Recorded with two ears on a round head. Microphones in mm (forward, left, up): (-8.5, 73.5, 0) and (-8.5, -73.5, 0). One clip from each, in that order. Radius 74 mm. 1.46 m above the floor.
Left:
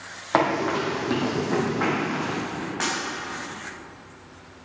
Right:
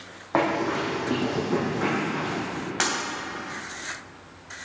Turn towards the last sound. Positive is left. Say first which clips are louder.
# right 2 dB
turn(degrees=-65)  # may be behind; listen again after turning